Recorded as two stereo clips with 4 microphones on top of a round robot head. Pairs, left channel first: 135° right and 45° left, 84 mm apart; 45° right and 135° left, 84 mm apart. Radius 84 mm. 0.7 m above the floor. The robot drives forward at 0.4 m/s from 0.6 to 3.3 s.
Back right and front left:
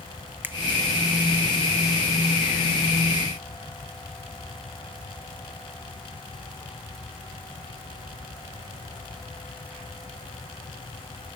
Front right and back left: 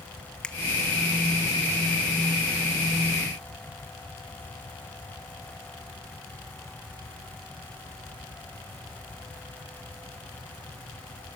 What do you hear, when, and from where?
0.4 s a finger snap: 20° left, 0.9 m